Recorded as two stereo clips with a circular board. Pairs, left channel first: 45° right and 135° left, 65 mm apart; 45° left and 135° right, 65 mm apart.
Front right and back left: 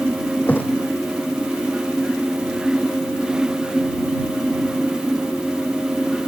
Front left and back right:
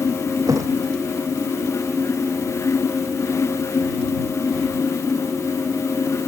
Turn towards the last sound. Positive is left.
turn(degrees=-105)